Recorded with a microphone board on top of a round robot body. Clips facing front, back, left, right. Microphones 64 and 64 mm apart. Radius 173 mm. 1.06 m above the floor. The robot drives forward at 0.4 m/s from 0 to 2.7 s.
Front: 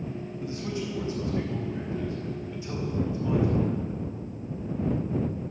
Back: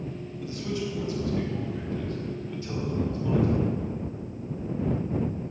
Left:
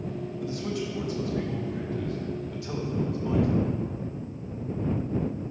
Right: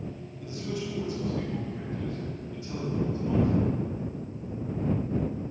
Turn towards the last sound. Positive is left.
turn(degrees=75)